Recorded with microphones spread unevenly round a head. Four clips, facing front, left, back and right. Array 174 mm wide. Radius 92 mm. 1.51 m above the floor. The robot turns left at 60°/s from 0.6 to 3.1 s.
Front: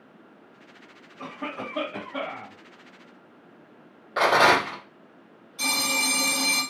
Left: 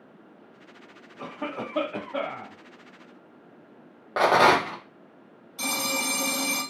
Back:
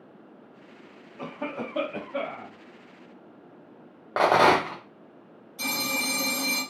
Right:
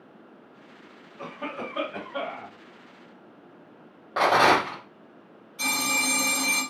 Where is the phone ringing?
130° left, 1.8 m.